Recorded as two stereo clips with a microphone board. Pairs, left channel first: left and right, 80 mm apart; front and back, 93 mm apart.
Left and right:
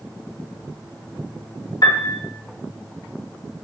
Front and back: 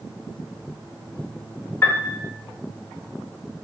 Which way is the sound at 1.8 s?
60° left.